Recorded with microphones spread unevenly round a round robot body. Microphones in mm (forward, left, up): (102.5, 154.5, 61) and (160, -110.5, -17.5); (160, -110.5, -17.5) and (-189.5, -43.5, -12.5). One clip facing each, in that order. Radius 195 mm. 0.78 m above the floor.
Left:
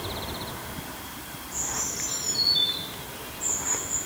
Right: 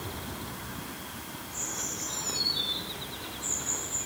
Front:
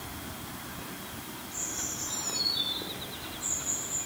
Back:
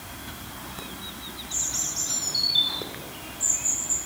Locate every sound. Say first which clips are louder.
1.5 s a bird: left 4 dB, even; 175° left, 4 m